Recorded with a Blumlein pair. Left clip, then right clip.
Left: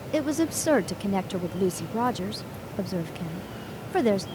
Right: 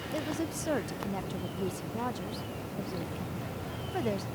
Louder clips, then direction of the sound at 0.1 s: Left 10 dB; 65° left.